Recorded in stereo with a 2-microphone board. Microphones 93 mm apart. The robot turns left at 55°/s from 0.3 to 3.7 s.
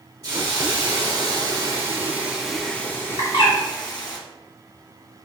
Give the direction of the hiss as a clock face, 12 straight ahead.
2 o'clock.